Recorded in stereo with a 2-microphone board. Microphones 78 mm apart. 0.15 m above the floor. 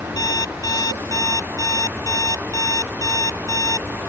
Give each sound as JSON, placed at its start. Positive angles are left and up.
{"t": 0.2, "sound": "an alarm clock", "side_deg": 50}